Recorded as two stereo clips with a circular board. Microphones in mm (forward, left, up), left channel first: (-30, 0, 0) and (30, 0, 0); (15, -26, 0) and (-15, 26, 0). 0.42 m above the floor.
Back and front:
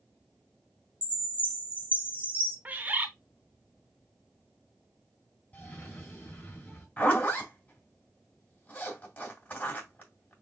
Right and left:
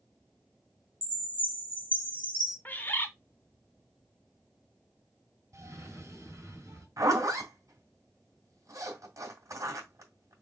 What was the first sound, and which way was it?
A chime, 65° left.